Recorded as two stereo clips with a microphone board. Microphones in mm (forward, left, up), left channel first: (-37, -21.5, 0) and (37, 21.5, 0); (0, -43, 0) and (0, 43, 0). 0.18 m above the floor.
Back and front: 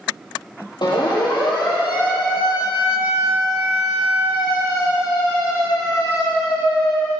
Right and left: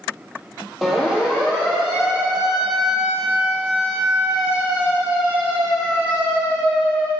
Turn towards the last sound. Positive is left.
turn(degrees=165)